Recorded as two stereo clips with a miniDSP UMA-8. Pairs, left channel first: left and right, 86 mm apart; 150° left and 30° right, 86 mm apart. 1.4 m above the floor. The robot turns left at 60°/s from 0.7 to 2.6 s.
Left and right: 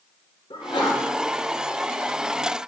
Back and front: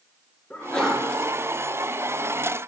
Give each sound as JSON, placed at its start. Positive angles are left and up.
{"t": 0.5, "sound": "a sneeze", "azimuth_deg": 70, "distance_m": 1.6}